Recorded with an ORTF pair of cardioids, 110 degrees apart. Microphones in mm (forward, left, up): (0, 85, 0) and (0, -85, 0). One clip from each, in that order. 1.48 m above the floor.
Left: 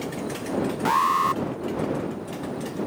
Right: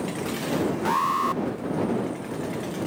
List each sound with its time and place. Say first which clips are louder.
0.8 s an alarm: left 4 dB; 20° left